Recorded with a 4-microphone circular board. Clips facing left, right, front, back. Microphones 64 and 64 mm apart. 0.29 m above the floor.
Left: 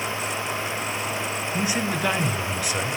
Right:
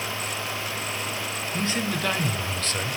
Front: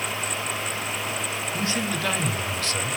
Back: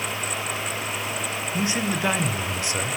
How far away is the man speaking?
About 1.0 m.